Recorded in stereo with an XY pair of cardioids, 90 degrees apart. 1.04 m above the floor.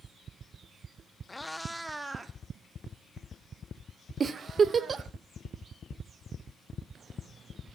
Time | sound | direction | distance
1.3 | a cat meowing | 25° left | 0.8 m
4.2 | a giggle | 45° right | 0.7 m